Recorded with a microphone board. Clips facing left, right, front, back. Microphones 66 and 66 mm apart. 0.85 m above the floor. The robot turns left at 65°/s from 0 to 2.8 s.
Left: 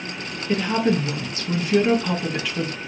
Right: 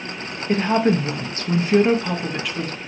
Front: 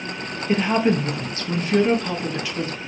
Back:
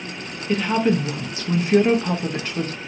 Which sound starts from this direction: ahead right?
A woman speaking, at 0.5 s.